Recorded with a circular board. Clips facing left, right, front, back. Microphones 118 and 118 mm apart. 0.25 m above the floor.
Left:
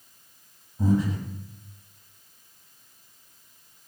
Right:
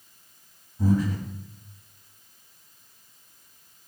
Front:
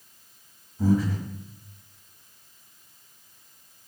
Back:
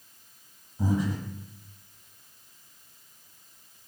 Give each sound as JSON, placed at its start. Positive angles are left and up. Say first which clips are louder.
{"t": 0.8, "sound": "breathing", "louder": "even, front 4 dB", "azimuth_deg": 130, "distance_m": 1.1}